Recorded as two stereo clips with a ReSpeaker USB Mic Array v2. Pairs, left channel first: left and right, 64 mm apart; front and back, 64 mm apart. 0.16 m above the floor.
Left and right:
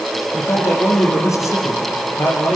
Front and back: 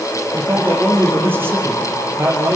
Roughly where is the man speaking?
Behind left.